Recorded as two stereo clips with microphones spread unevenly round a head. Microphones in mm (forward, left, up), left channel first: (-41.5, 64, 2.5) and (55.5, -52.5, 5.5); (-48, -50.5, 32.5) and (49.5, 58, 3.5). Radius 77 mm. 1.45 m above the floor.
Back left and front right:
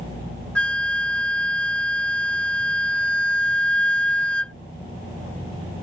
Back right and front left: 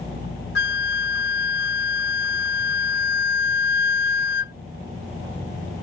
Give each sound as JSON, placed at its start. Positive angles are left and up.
{"t": 0.6, "sound": "a flute", "azimuth_deg": -145}